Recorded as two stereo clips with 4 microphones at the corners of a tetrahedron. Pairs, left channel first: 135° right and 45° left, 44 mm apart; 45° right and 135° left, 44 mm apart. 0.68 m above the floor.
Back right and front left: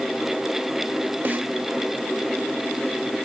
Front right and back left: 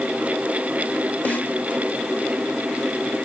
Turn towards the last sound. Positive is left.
turn(degrees=5)